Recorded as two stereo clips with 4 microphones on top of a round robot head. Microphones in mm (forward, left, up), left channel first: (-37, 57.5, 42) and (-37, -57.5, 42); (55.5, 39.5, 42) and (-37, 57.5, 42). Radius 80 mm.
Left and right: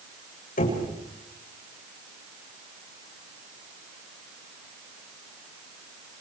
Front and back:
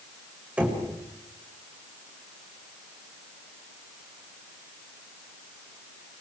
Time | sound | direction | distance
0.6 | knocking | 90° left | 7.5 m